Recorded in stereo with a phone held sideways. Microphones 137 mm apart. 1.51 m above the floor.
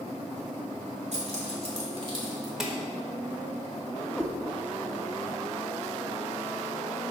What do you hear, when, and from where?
1.1 s keys jangling: 60° right (ahead or behind), 2.5 m; by 2.5 s 25° right (ahead or behind), 1.6 m
2.6 s dishes clattering: 5° right (ahead or behind), 1.1 m
4.2 s a cat meowing: 5° left (ahead or behind), 1.0 m